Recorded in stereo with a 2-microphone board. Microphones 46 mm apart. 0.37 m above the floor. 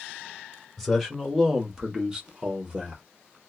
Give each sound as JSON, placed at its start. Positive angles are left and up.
{"t": 0.8, "sound": "a man speaking", "side_deg": 0, "distance_m": 1.3}